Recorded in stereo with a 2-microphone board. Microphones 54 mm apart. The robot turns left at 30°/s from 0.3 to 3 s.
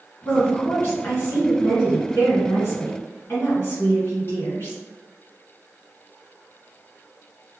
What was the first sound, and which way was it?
A woman speaking, 140° left.